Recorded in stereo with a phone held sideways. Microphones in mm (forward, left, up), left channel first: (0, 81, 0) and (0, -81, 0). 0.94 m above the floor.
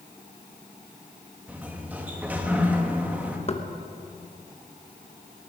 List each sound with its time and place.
1.5 s a sliding door: 10° right (ahead or behind), 1.1 m
3.5 s knocking: 40° left (ahead or behind), 0.9 m